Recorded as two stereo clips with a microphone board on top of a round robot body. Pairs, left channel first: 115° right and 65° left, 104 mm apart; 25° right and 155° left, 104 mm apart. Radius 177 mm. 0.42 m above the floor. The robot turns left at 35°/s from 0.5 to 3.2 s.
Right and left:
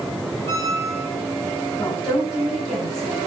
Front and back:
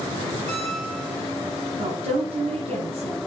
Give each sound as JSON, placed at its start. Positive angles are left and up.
{"t": 0.5, "sound": "a squeak", "azimuth_deg": 175, "distance_m": 2.5}
{"t": 1.8, "sound": "a woman speaking", "azimuth_deg": 175, "distance_m": 5.0}